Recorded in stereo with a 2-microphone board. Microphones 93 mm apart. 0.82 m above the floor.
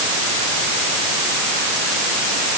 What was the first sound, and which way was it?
Only background noise.